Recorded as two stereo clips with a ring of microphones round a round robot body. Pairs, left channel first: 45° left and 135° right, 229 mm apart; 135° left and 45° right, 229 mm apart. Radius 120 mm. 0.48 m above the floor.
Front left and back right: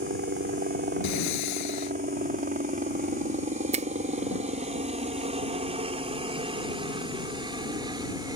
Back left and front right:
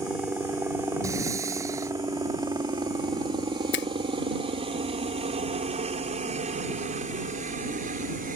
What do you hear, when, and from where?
0.0 s a helicopter: 125° right; by 8.4 s 70° right
1.0 s breathing: 35° left
3.7 s a finger snap: 165° left